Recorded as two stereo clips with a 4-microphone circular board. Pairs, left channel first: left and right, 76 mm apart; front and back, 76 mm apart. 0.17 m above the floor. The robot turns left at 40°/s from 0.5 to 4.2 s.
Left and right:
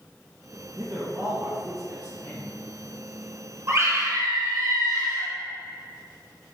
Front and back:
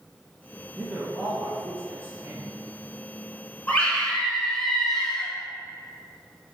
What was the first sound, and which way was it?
A man speaking, 95° right.